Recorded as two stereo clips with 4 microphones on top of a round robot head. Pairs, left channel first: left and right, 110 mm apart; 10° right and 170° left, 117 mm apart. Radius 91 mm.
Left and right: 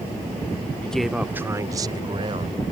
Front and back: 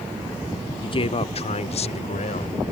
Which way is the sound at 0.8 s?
15° left.